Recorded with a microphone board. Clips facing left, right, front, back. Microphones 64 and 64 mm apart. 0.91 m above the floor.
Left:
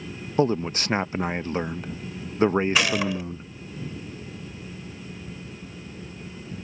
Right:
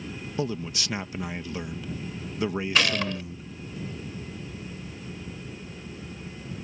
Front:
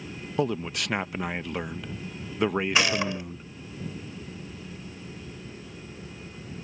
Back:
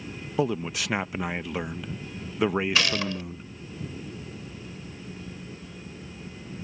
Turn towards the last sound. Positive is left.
turn(degrees=20)